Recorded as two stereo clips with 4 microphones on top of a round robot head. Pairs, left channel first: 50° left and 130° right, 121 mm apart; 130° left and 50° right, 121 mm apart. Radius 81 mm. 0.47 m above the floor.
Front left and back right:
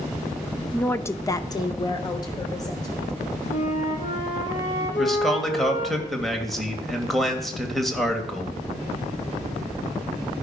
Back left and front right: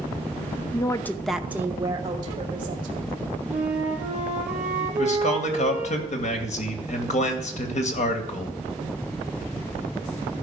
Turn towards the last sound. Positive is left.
turn(degrees=140)